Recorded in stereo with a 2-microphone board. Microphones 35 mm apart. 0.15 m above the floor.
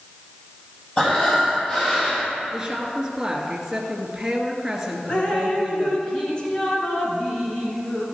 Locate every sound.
1.0 s breathing: 25° left (ahead or behind), 4 m
2.5 s a woman speaking: 15° right (ahead or behind), 2 m
5.1 s dripping: 30° left (ahead or behind), 2 m